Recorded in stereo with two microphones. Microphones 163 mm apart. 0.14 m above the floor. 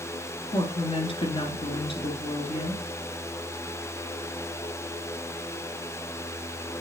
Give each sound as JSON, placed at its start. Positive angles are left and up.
{"t": 0.5, "sound": "a woman speaking", "side_deg": 30, "distance_m": 2.5}